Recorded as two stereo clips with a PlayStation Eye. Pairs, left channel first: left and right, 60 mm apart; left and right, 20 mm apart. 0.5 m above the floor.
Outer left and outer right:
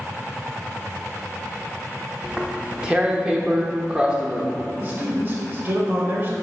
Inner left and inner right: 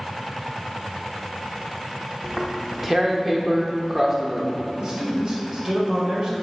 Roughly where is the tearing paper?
Centre.